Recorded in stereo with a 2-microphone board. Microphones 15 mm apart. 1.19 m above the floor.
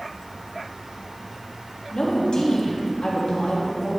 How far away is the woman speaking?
About 2.5 m.